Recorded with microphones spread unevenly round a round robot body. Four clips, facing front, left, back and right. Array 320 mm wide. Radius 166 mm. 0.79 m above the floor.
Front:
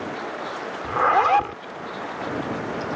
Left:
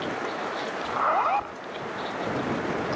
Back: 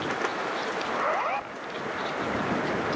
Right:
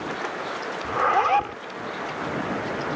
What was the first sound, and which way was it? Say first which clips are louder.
A zipper: right 3 dB, front 11 dB; 25° right.